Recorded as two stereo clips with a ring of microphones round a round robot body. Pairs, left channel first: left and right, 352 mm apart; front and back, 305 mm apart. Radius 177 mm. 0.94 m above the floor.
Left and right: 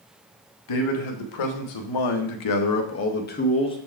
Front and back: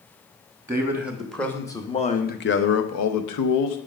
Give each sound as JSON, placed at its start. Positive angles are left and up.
{"t": 0.7, "sound": "a man speaking", "azimuth_deg": 100, "distance_m": 1.4}